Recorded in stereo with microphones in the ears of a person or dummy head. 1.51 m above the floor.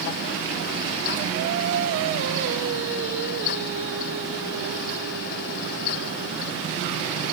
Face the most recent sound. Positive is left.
turn(degrees=-65)  # may be behind; listen again after turning